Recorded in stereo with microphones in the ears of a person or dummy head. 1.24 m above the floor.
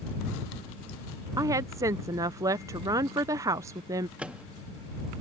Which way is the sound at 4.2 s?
5° right (ahead or behind).